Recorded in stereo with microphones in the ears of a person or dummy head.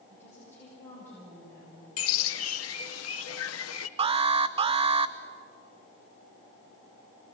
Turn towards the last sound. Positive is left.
turn(degrees=-30)  # may be behind; listen again after turning